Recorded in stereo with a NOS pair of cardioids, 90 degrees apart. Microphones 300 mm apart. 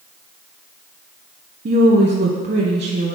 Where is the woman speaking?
35° right, 1.2 m.